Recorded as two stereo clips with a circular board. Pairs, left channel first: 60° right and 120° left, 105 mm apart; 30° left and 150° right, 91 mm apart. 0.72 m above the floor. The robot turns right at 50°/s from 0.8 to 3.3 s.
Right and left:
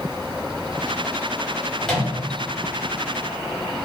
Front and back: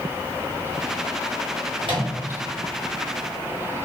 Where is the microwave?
145° right, 1.4 m; by 2.1 s 130° right, 1.4 m.